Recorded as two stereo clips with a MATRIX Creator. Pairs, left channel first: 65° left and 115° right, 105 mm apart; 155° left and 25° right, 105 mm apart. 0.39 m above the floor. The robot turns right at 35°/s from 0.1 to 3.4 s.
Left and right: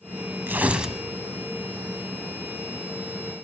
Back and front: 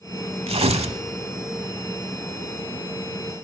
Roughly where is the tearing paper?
Ahead right.